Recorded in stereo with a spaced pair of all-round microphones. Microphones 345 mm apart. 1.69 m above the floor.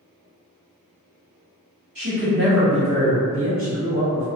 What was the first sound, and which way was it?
A woman speaking, 70° right (ahead or behind).